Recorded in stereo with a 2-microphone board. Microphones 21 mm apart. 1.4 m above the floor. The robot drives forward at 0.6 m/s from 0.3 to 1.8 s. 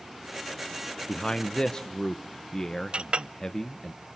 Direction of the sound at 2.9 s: 55° right (ahead or behind).